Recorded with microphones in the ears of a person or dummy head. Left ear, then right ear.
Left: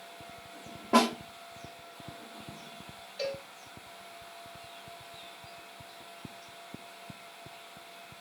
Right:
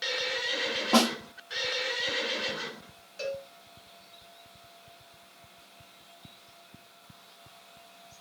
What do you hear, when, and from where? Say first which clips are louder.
0.9 s a snare drum: even; 35° right (ahead or behind), 1.1 m
3.2 s a cowbell: right 1 dB; 35° right (ahead or behind), 2.5 m